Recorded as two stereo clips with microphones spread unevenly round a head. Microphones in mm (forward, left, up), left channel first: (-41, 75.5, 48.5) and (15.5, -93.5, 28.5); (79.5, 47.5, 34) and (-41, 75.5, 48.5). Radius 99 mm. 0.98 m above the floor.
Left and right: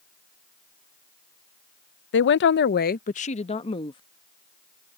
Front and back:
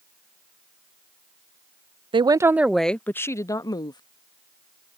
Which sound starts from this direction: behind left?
A woman speaking, at 2.1 s.